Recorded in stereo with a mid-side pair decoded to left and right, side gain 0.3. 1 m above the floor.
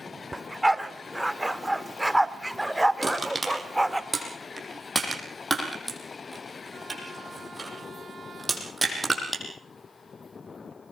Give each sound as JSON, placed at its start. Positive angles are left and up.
{"t": 0.3, "sound": "a dog barking", "azimuth_deg": -10, "distance_m": 1.3}
{"t": 3.0, "sound": "crushing", "azimuth_deg": -25, "distance_m": 7.0}